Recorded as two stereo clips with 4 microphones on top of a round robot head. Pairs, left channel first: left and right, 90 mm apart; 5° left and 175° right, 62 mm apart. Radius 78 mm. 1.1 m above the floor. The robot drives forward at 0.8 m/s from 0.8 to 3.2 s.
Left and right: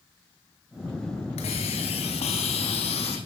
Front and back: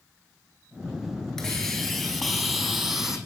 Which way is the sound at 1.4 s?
90° left.